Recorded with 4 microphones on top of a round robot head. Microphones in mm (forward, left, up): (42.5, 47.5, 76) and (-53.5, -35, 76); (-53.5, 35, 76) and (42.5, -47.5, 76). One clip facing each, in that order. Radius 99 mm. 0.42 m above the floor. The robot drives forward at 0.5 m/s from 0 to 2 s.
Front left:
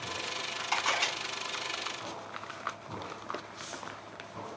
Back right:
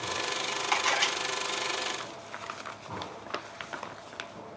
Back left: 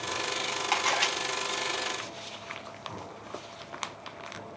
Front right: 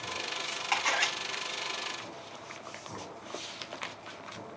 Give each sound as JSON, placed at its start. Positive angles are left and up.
{"t": 0.7, "sound": "a camera shutter", "azimuth_deg": -160, "distance_m": 3.5}